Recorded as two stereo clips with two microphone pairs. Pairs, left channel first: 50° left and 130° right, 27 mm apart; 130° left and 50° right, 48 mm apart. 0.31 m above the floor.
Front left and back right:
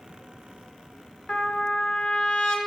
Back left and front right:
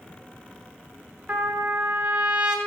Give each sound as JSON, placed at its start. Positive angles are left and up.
{"t": 1.3, "sound": "a trumpet", "azimuth_deg": 10, "distance_m": 0.9}